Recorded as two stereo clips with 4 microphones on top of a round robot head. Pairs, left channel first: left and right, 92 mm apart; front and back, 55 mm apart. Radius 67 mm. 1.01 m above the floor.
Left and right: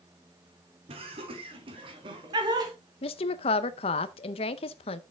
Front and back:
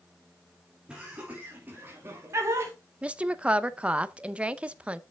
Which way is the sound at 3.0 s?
110° left.